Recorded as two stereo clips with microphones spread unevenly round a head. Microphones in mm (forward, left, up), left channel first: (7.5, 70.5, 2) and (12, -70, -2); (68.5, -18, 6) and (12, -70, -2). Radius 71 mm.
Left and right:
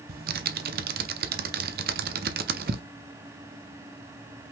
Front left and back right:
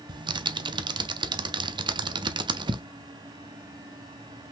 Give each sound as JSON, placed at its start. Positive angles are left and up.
{"t": 0.1, "sound": "typing on a keyboard", "azimuth_deg": -115, "distance_m": 0.7}